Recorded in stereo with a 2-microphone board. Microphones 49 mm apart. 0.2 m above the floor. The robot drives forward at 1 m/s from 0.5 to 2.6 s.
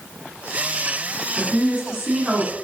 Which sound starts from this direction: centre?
A woman speaking, at 1.4 s.